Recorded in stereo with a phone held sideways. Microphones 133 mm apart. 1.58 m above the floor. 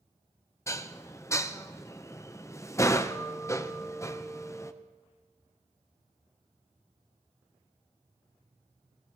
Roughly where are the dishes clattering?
Left.